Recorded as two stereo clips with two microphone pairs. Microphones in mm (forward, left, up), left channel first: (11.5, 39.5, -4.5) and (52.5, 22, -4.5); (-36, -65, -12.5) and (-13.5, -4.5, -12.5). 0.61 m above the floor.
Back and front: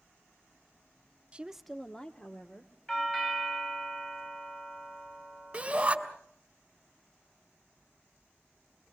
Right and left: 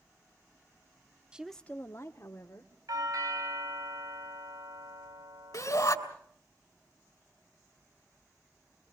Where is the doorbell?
85° left, 4.5 m.